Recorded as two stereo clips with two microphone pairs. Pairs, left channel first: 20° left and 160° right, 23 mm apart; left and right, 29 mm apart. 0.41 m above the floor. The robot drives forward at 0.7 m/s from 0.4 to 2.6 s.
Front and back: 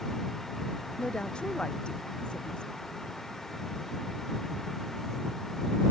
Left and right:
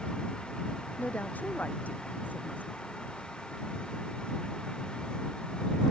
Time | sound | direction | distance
1.0 | a woman speaking | 70° left | ?